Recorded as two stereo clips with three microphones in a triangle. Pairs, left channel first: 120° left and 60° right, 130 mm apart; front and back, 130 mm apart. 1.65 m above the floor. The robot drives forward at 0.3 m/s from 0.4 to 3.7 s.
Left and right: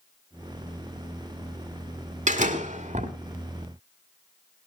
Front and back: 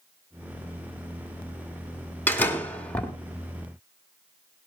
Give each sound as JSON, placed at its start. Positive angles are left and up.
{"t": 2.3, "sound": "a door slam", "azimuth_deg": -75, "distance_m": 2.0}